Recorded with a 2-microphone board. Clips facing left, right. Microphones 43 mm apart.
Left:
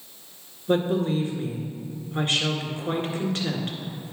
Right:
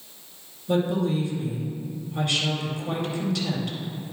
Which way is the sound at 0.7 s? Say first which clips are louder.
Left 1 dB; 40° left (ahead or behind).